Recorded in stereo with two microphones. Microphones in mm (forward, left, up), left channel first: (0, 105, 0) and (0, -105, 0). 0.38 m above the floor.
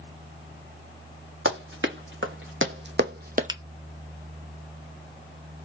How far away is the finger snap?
About 0.7 m.